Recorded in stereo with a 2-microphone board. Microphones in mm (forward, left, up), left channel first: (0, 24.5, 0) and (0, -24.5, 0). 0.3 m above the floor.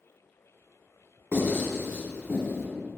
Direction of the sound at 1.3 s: 65° right (ahead or behind).